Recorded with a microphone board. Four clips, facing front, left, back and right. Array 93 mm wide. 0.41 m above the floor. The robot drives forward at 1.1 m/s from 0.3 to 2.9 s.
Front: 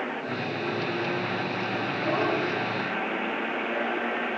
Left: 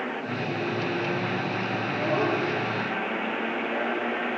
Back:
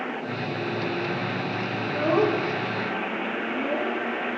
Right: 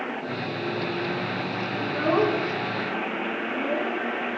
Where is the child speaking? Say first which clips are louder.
Right 5 dB, back 6 dB; 110° right, 4.5 m; by 4.0 s 120° right, 5 m.